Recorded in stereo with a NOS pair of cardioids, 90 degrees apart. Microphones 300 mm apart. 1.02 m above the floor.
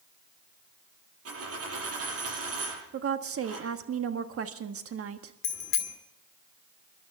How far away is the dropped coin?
About 7.5 m.